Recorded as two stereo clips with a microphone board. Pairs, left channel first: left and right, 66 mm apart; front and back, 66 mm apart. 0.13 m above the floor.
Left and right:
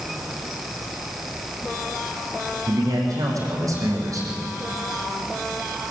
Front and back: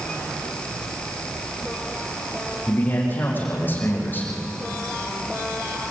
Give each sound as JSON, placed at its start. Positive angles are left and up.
{"t": 2.7, "sound": "a man speaking", "azimuth_deg": -60, "distance_m": 7.0}